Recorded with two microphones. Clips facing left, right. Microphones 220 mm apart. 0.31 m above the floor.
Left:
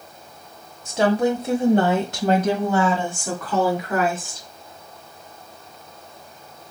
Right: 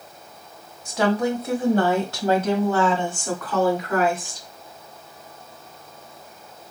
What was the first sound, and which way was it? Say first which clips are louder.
A woman speaking: left 2 dB; 30° left (ahead or behind).